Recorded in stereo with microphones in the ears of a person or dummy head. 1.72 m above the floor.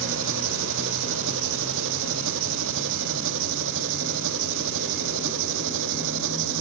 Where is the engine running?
65° right (ahead or behind).